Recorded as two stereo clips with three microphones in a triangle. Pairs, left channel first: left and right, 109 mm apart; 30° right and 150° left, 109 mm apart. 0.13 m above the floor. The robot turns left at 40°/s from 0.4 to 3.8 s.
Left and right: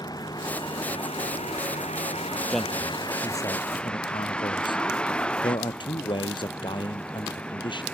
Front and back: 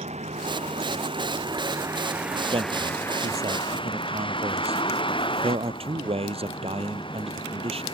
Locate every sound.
0.0 s a vehicle: 145° left; by 7.9 s 10° left
2.5 s a man speaking: straight behind; by 7.8 s 130° left